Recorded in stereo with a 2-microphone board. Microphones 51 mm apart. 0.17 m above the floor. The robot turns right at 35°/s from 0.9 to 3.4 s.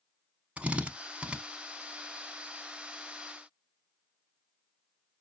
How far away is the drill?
About 0.6 m.